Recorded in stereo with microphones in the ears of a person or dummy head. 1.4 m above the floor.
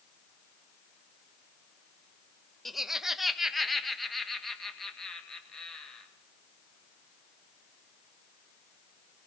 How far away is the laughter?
About 0.6 m.